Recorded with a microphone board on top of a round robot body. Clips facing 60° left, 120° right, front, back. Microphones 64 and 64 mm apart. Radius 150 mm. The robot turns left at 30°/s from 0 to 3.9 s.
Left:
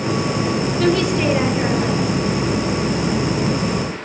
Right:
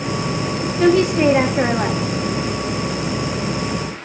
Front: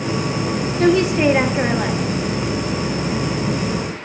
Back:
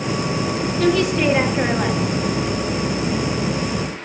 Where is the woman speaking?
55° right, 1.3 m; by 2.0 s 95° right, 1.3 m.